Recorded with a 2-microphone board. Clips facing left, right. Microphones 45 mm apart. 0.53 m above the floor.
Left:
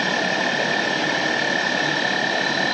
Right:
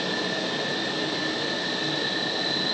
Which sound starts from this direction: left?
An insect, at 0.0 s.